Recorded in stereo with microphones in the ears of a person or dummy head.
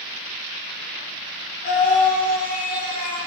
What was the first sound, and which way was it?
A scream, 40° left (ahead or behind).